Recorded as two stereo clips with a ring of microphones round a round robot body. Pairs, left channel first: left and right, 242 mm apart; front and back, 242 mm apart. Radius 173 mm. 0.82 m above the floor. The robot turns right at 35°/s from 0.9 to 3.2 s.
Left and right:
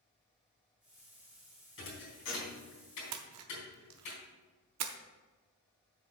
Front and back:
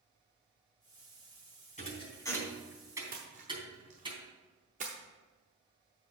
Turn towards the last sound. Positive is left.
turn(degrees=-110)